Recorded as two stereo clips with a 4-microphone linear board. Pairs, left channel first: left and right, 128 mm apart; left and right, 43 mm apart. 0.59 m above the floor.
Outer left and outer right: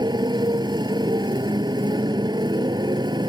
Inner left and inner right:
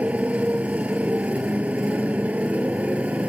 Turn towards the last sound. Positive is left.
turn(degrees=-35)  # may be behind; listen again after turning